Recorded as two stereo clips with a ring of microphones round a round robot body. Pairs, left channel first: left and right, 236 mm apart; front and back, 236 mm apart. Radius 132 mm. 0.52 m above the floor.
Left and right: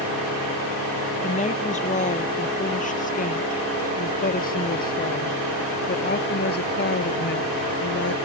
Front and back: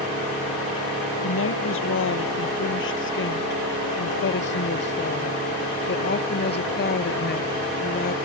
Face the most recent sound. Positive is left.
turn(degrees=50)